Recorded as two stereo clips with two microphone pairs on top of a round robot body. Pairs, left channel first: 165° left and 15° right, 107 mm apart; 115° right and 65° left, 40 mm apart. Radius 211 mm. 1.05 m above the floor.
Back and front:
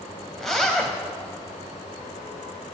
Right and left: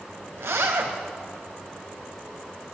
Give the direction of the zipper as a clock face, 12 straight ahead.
9 o'clock.